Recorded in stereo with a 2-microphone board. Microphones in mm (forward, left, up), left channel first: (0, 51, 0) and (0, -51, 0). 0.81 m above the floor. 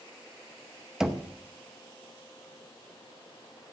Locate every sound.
1.0 s knocking: 5° right (ahead or behind), 0.7 m